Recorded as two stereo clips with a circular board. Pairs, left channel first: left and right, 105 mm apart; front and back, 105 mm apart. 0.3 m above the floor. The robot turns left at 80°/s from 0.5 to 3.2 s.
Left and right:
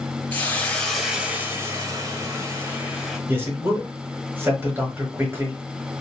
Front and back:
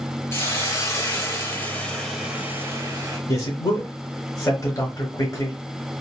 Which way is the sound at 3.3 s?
35° right.